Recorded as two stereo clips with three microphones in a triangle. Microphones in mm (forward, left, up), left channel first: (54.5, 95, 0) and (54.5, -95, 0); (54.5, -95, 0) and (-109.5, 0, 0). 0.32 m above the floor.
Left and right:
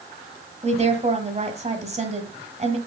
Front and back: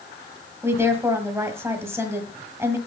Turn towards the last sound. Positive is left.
turn(degrees=-135)